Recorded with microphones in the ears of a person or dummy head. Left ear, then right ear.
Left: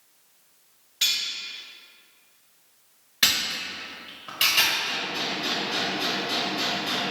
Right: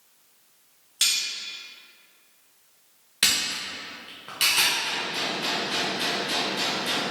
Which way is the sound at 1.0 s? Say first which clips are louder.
Even; 35° right (ahead or behind).